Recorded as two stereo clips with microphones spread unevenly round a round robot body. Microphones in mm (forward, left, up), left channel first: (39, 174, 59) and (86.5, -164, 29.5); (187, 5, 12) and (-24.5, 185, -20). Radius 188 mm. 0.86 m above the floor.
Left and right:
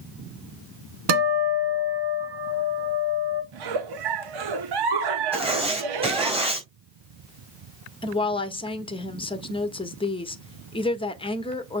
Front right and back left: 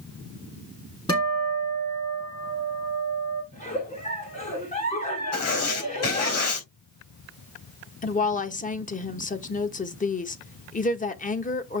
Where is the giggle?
115° right, 1.1 m.